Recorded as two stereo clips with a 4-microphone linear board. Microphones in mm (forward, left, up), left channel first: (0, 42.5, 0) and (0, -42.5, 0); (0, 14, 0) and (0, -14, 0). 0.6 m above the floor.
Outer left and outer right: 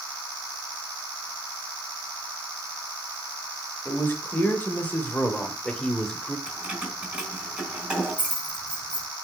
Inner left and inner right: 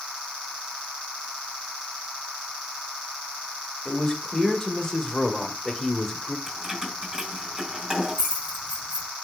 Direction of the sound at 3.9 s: 25° left (ahead or behind).